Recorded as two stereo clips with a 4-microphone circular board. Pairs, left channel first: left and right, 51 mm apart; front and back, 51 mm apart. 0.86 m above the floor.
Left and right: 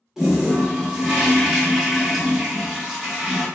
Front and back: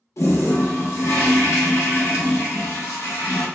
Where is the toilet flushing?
10° right, 0.8 m.